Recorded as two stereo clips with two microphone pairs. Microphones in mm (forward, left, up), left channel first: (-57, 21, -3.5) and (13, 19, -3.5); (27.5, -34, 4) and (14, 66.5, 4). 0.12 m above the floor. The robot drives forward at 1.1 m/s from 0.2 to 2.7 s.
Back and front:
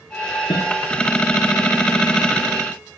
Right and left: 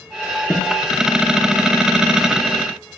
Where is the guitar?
170° right, 3.5 m.